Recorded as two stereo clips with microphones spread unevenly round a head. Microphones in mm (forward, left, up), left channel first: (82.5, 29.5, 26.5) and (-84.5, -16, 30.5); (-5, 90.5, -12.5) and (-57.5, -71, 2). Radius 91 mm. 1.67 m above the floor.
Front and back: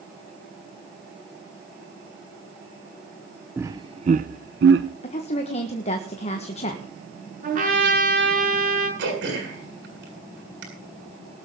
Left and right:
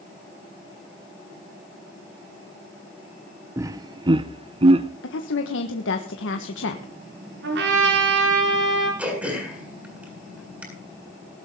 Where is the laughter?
110° right, 0.6 m; by 4.9 s 155° right, 1.0 m.